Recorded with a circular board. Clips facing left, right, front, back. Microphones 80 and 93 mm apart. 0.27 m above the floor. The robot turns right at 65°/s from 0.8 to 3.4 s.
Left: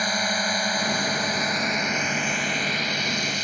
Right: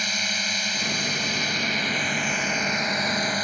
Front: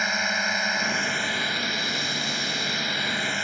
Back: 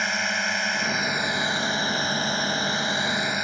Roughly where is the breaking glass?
I don't hear breaking glass.